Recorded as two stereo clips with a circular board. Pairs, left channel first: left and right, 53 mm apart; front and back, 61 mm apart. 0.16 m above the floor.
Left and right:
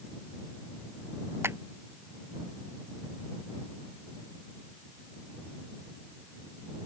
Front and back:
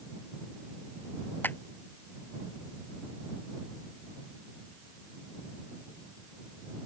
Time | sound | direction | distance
1.4 | a clap | 55° right | ?